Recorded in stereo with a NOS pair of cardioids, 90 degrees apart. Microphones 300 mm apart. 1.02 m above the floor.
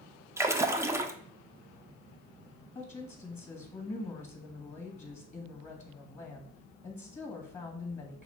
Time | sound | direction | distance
0.4 | a splash | 10° right | 0.5 m
2.8 | a woman speaking | 25° left | 1.5 m